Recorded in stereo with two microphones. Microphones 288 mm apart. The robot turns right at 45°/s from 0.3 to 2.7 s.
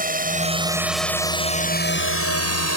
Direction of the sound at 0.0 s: 30° right (ahead or behind).